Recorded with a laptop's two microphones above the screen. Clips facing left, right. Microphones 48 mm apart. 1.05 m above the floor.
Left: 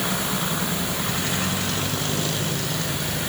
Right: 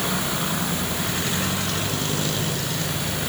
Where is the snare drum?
No snare drum in this recording.